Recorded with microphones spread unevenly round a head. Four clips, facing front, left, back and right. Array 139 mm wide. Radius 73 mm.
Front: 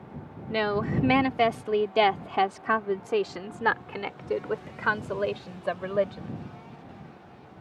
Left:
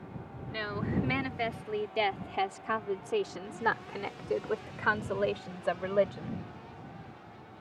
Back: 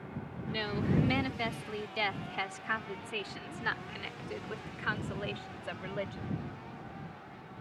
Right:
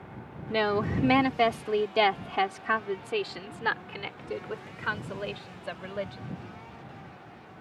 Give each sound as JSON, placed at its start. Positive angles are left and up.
{"t": 0.5, "sound": "a woman speaking", "azimuth_deg": -50}